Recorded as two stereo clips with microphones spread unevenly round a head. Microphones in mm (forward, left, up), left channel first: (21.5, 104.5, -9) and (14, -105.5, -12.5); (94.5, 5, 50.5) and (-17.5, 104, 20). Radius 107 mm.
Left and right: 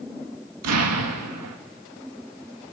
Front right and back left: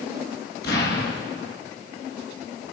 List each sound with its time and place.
0.6 s an explosion: 85° right, 2 m